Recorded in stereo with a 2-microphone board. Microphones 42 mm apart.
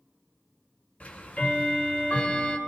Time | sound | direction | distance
1.0 | ticking | 40° left (ahead or behind) | 1.6 m